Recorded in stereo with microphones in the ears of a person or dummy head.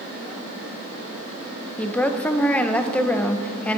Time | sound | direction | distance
1.8 | a woman speaking | 5° left (ahead or behind) | 0.7 m